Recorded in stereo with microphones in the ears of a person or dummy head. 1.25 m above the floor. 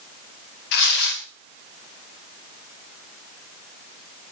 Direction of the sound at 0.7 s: 50° left (ahead or behind).